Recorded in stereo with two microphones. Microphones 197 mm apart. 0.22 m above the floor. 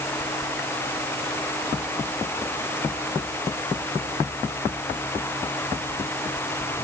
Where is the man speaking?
No man speaking in this recording.